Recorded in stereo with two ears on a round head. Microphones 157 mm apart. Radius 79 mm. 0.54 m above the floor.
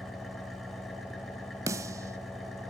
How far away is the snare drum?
About 1.0 m.